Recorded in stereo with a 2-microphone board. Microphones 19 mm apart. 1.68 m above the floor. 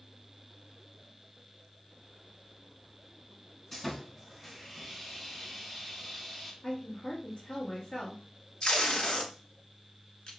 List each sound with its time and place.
3.7 s sawing: 10° left (ahead or behind), 1.9 m
6.6 s a woman speaking: 55° left (ahead or behind), 1.4 m
8.6 s tape being pulled: 55° left (ahead or behind), 1.2 m